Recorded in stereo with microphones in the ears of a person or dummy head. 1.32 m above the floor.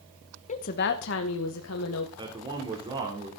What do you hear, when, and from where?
0.5 s a woman speaking: 40° left (ahead or behind), 1.0 m; by 2.1 s 80° left, 1.8 m
2.2 s a man speaking: 25° right (ahead or behind), 3 m